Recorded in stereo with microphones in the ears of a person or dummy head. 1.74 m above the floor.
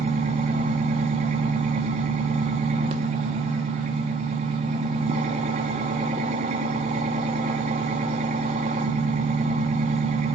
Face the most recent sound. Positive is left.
turn(degrees=-35)  # may be behind; listen again after turning